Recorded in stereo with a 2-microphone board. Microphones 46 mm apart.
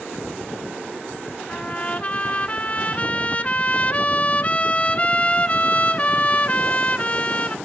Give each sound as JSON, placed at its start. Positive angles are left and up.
{"t": 1.5, "sound": "a trumpet", "side_deg": 30, "distance_m": 0.6}